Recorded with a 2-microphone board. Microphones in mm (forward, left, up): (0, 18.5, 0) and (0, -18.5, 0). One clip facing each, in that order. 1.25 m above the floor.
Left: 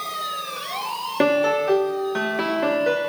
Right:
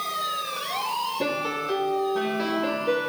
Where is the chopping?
No chopping in this recording.